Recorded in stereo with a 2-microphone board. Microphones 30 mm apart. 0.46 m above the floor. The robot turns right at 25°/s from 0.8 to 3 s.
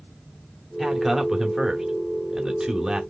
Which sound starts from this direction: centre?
A man speaking, at 0.8 s.